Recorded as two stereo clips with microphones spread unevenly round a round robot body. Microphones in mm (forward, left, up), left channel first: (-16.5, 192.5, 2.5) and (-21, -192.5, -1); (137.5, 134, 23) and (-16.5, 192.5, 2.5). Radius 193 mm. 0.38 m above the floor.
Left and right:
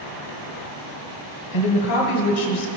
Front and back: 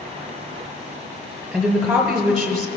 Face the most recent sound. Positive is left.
turn(degrees=75)